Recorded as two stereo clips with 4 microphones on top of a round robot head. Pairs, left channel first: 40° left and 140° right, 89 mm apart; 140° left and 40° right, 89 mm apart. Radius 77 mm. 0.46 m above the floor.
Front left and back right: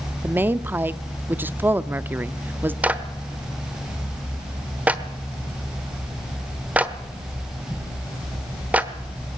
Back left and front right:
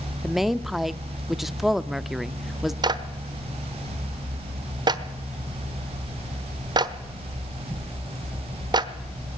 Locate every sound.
0.2 s a woman speaking: 125° right, 0.7 m
2.8 s a clap: 70° right, 1.2 m